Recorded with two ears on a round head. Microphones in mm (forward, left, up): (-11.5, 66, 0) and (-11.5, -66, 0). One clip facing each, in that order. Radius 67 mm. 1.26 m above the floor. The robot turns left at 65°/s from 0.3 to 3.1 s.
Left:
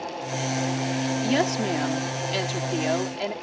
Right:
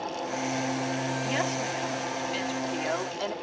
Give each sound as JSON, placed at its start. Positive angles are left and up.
{"t": 1.2, "sound": "a woman speaking", "azimuth_deg": 140}